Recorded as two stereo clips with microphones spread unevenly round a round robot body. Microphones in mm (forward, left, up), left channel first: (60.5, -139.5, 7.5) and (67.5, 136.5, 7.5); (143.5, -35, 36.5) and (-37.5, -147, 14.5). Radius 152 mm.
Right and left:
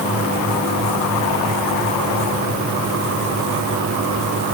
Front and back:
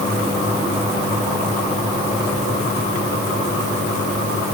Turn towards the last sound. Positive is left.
No sound to turn to.